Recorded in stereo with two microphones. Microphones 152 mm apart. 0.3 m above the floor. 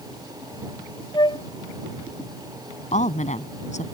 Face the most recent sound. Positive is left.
turn(degrees=55)  # may be behind; listen again after turning